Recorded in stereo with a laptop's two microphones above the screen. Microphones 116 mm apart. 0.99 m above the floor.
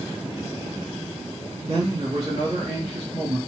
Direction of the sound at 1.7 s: 65° right (ahead or behind).